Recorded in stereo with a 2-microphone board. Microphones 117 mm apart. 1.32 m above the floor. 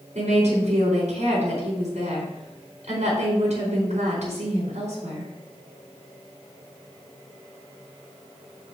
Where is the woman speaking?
90° right, 4.5 m.